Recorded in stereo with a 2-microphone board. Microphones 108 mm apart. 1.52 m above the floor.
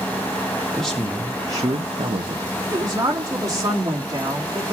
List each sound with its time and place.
0.8 s a man speaking: 5° left (ahead or behind), 1.2 m; by 2.5 s 80° right, 1.2 m
2.7 s a woman speaking: 35° right (ahead or behind), 3 m